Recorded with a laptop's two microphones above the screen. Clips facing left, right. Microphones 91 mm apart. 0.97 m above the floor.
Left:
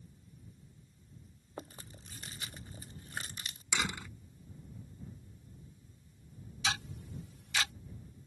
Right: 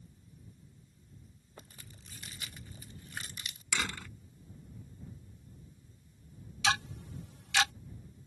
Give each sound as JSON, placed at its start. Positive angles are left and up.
{"t": 1.6, "sound": "chewing", "side_deg": 35}
{"t": 3.7, "sound": "a door slam", "side_deg": 15}
{"t": 6.6, "sound": "ticking", "side_deg": -80}